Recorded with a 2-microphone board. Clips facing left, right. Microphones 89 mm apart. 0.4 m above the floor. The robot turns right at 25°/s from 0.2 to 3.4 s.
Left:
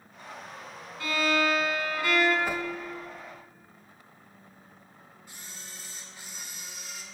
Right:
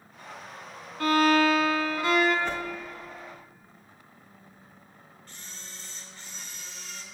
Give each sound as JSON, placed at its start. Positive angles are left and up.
{"t": 1.0, "sound": "a violin", "azimuth_deg": -55, "distance_m": 1.3}
{"t": 2.5, "sound": "a whoosh", "side_deg": 10, "distance_m": 0.6}
{"t": 5.3, "sound": "a camera shutter", "side_deg": 10, "distance_m": 1.2}